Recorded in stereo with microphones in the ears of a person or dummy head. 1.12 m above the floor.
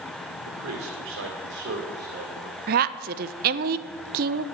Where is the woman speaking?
40° right (ahead or behind), 0.8 m.